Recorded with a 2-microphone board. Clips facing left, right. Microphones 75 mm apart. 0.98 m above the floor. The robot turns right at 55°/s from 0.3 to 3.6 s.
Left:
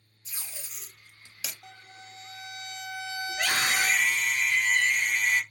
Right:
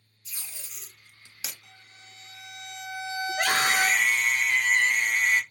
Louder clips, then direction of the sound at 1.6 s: Left 5 dB; 120° left.